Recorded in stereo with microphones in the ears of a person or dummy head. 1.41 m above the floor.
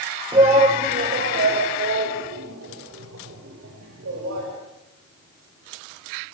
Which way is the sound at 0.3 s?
25° right (ahead or behind).